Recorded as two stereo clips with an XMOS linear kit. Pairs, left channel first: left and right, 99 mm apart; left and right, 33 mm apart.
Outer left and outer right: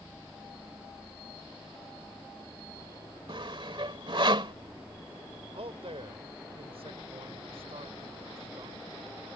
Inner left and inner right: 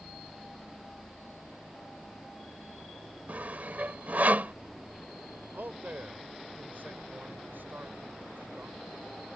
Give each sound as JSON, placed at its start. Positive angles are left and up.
{"t": 3.3, "sound": "sawing", "side_deg": -55}
{"t": 5.5, "sound": "a man speaking", "side_deg": -75}